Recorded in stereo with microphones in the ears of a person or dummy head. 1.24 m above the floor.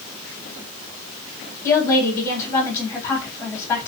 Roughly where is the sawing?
No sawing in this recording.